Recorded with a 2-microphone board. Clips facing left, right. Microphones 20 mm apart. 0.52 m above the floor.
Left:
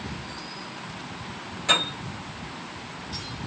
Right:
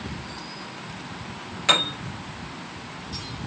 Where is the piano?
40° right (ahead or behind), 0.9 m.